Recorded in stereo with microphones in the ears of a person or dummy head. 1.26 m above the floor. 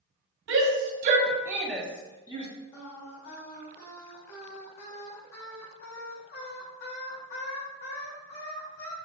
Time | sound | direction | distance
0.5 | a shout | 70° right (ahead or behind) | 1.2 m
2.7 | singing | 55° left (ahead or behind) | 1.9 m